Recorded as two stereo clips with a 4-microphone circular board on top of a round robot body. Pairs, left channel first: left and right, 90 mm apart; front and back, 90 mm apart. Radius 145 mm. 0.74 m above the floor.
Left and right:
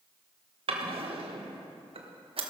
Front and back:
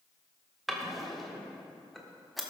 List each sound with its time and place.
0.7 s a drawer: 90° right, 1.5 m